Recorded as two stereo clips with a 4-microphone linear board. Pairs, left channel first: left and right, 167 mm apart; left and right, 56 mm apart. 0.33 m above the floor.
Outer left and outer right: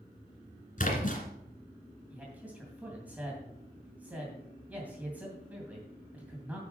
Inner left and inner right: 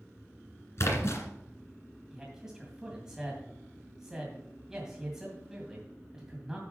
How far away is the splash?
About 2 m.